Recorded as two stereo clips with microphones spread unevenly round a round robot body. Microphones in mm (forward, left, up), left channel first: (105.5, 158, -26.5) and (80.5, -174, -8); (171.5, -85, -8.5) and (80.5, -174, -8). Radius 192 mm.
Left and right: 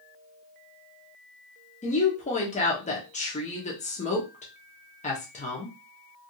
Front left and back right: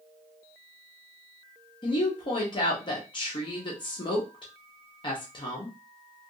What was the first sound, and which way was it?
A woman speaking, 35° left.